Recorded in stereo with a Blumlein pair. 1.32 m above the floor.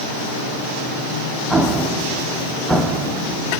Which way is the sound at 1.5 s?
10° right.